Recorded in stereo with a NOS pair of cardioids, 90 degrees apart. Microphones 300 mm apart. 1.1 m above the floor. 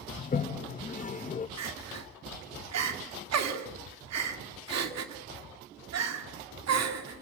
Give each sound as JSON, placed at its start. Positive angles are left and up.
{"t": 0.2, "sound": "a toilet flushing", "azimuth_deg": 25, "distance_m": 1.0}
{"t": 1.6, "sound": "crying", "azimuth_deg": -60, "distance_m": 2.5}